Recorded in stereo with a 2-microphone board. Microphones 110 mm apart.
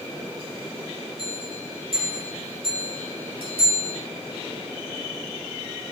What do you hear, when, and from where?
1.2 s a bell: 55° right (ahead or behind), 5 m